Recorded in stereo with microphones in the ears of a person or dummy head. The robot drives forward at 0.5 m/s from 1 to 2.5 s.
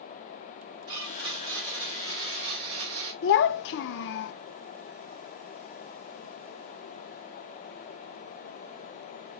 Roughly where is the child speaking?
Left.